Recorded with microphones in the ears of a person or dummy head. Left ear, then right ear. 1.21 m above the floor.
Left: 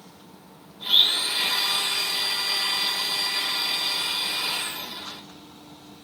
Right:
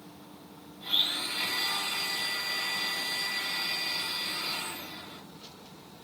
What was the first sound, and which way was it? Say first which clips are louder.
A blender: left 9 dB; 30° left (ahead or behind).